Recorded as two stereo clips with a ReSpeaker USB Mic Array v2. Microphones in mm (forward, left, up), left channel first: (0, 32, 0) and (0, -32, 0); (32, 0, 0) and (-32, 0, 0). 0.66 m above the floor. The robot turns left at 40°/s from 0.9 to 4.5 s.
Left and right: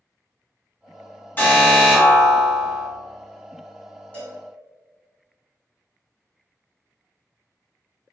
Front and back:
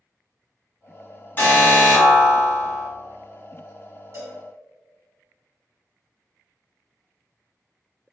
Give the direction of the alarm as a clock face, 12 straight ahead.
11 o'clock.